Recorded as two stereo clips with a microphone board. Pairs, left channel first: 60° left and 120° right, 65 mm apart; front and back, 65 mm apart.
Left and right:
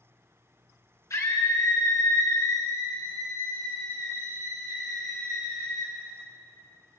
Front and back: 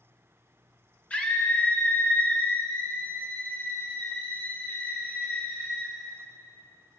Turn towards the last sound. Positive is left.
turn(degrees=60)